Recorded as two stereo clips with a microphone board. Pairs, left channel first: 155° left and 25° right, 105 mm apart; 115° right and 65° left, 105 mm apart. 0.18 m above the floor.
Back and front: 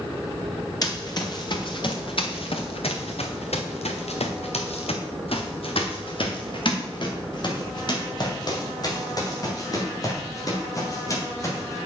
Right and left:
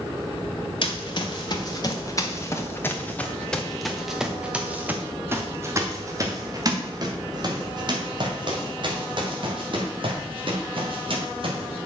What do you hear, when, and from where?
0.8 s running footsteps: 150° right, 2.0 m; by 11.8 s 100° left, 4.5 m